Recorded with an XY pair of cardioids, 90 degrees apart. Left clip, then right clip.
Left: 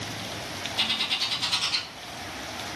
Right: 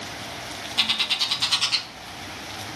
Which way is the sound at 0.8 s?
60° right.